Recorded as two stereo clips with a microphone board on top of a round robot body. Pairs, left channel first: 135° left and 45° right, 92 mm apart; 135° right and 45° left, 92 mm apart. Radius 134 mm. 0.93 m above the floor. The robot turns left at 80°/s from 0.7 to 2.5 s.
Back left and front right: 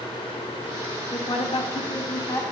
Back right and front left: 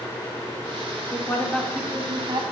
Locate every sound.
1.1 s a woman speaking: straight behind, 2.5 m; by 2.4 s 75° left, 2.5 m